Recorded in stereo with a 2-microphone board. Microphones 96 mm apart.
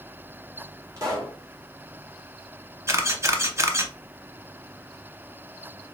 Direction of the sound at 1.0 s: 35° right (ahead or behind).